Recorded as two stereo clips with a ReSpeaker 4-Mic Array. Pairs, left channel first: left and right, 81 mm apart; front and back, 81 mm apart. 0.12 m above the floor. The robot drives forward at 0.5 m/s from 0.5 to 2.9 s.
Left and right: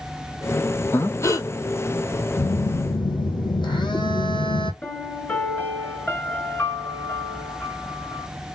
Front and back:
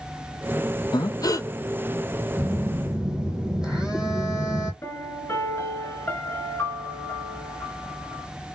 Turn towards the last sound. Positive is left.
turn(degrees=40)